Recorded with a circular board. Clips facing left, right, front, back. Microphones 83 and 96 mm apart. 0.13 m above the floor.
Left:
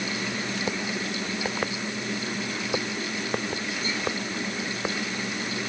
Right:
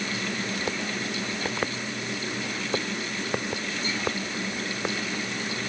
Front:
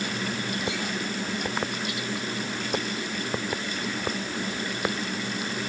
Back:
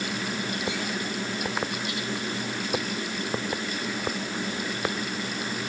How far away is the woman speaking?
I don't hear a woman speaking.